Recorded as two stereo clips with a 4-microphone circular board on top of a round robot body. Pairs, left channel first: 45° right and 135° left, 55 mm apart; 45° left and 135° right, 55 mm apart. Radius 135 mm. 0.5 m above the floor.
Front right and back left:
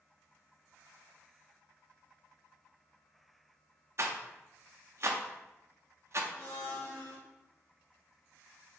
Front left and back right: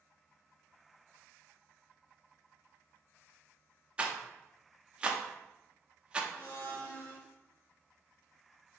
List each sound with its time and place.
4.0 s a rattle: 155° left, 0.7 m
6.3 s a blender: straight ahead, 1.6 m